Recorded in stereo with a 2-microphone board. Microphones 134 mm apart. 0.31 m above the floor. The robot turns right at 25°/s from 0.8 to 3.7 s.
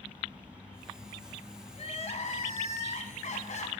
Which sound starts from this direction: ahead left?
Crying, at 1.7 s.